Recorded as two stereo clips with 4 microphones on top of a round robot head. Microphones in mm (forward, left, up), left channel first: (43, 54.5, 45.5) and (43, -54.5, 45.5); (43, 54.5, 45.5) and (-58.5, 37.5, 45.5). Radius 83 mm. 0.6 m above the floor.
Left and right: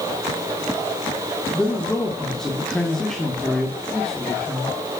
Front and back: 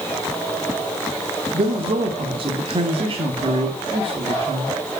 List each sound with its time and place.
1.5 s a man speaking: 175° left, 1.9 m